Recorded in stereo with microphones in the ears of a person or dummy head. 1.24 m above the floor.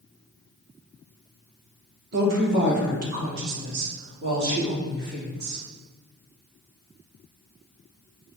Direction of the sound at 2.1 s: 45° right (ahead or behind).